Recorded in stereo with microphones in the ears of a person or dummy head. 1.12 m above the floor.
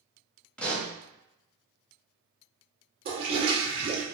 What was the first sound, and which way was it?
A pop, 5° left (ahead or behind).